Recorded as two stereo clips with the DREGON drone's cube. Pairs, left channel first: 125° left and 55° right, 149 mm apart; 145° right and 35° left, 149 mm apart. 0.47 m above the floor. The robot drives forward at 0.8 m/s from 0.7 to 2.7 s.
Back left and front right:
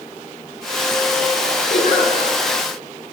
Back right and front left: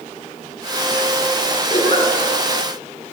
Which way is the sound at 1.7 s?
160° left.